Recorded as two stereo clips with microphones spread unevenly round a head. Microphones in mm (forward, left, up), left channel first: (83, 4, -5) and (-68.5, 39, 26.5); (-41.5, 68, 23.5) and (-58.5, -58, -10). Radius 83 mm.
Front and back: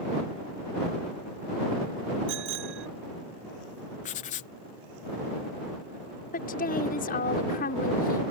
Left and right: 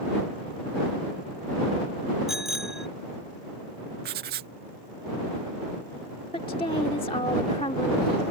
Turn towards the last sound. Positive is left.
turn(degrees=25)